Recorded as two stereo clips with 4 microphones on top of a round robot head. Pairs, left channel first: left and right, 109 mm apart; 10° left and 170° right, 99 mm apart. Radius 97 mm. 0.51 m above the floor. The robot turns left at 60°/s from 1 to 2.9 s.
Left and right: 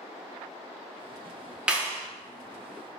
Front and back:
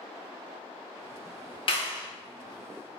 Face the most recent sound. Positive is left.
turn(degrees=-80)